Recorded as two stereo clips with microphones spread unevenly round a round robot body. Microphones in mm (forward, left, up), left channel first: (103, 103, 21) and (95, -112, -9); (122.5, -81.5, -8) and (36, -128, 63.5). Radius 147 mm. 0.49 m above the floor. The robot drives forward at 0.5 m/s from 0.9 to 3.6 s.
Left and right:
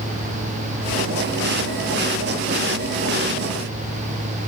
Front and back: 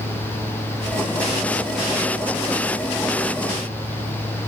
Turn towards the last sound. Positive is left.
No sound to turn to.